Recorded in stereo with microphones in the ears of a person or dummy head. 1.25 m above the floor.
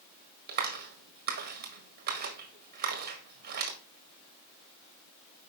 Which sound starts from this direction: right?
A clap, at 0.5 s.